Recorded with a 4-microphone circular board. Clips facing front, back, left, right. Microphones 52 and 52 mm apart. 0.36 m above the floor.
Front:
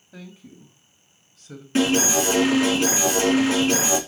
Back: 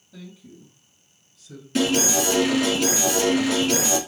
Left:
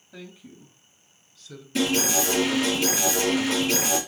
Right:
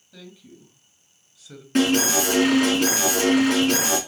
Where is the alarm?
60° right, 4 m.